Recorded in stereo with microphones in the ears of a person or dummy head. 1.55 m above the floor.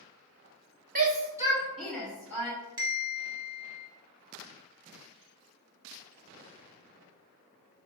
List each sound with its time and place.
0.9 s a shout: 40° right (ahead or behind), 0.9 m; by 2.5 s 10° left (ahead or behind), 2.0 m
2.8 s a bell: 20° right (ahead or behind), 0.6 m